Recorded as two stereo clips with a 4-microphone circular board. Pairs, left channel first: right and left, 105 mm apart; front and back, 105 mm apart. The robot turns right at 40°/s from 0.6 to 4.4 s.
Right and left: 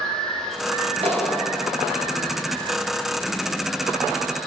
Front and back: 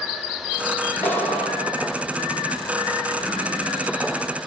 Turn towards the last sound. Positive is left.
turn(degrees=-155)